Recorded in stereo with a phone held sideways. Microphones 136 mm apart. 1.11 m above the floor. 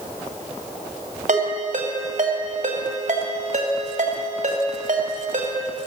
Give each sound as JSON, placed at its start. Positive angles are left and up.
{"t": 1.3, "sound": "a ringtone", "side_deg": -70, "distance_m": 2.5}